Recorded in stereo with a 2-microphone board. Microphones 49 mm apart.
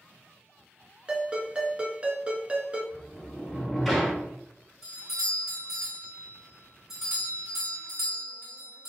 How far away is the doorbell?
About 1.5 m.